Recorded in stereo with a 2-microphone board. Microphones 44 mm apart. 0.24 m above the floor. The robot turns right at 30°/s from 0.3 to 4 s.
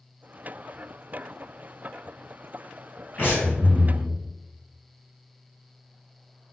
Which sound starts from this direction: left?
Breathing, at 3.2 s.